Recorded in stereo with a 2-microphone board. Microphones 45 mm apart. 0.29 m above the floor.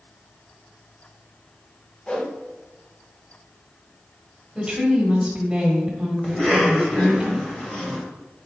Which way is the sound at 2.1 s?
20° left (ahead or behind).